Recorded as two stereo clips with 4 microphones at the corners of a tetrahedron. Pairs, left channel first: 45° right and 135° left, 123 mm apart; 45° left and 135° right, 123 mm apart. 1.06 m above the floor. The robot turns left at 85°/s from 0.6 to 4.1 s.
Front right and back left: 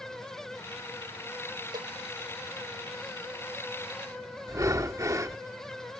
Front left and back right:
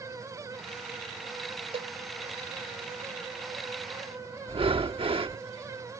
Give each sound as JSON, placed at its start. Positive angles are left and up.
{"t": 1.7, "sound": "a cowbell", "azimuth_deg": -170}
{"t": 4.5, "sound": "breathing", "azimuth_deg": -165}